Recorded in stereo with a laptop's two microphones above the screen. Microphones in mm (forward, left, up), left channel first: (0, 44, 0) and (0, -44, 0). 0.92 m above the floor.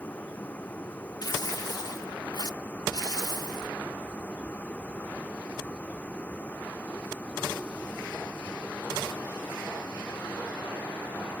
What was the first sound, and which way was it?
A vehicle, 20° left (ahead or behind).